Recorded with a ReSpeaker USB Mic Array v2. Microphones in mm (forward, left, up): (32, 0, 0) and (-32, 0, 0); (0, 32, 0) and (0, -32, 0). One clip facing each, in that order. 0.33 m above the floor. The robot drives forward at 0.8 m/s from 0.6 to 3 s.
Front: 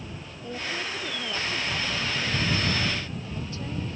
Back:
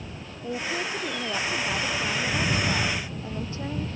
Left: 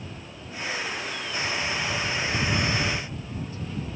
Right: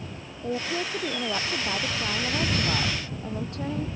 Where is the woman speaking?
110° right; by 3.9 s 115° right.